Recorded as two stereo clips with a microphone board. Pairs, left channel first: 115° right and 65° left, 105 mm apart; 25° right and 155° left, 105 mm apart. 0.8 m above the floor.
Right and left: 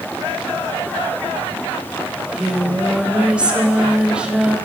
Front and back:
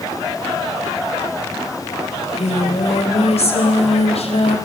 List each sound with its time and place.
2.1 s singing: 10° right, 4 m